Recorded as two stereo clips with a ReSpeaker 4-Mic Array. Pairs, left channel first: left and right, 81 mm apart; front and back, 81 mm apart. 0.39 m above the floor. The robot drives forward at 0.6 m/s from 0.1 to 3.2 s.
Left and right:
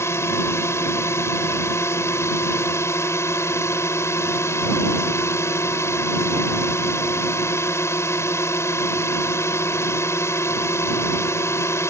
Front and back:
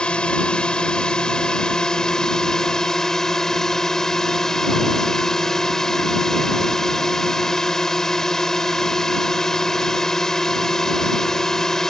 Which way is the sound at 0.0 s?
70° left.